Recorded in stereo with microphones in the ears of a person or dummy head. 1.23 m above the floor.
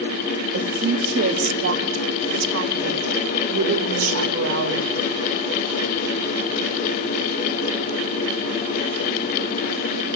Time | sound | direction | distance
0.5 | a woman speaking | 65° right (ahead or behind) | 2 m